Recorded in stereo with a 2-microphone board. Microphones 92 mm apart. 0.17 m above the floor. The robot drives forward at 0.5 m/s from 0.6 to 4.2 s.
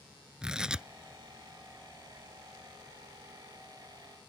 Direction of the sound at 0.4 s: 10° right (ahead or behind).